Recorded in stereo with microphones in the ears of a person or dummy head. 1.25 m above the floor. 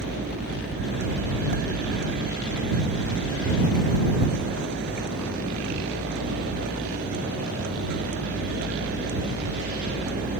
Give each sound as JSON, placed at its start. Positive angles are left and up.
{"t": 0.0, "sound": "a vehicle", "side_deg": -60}